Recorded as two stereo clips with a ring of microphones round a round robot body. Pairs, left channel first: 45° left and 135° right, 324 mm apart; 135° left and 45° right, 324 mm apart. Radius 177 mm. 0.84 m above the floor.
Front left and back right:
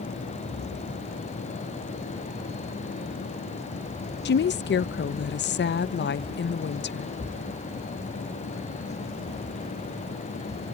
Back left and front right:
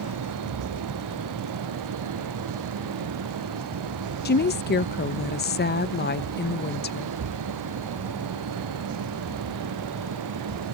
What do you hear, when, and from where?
4.2 s a woman speaking: 90° left